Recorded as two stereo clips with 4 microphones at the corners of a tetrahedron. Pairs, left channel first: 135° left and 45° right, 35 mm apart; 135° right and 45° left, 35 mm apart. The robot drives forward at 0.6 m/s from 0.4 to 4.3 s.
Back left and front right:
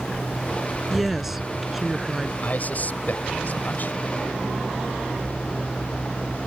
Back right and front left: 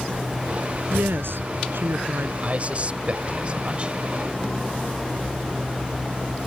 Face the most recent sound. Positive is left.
turn(degrees=105)